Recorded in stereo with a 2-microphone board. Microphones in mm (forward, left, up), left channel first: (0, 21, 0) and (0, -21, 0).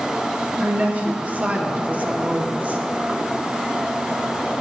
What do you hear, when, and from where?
0.6 s a woman speaking: 40° right (ahead or behind), 0.8 m